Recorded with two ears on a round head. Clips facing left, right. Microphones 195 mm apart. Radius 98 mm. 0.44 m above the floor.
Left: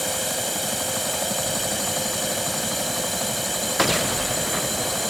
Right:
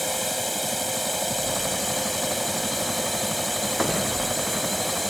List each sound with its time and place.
0.0 s a drone: 5° left (ahead or behind)